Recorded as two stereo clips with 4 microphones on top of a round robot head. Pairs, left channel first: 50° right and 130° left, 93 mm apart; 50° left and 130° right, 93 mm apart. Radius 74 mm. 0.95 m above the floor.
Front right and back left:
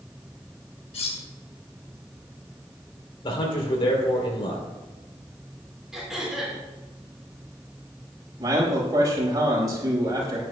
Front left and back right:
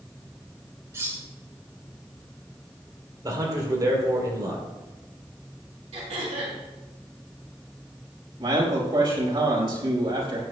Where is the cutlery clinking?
70° right, 2 m.